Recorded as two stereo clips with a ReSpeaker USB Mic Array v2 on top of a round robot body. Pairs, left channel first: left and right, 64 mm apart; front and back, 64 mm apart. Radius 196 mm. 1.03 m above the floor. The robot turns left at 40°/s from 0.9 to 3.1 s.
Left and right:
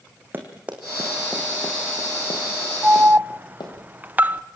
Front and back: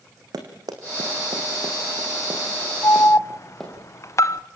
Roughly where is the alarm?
Ahead.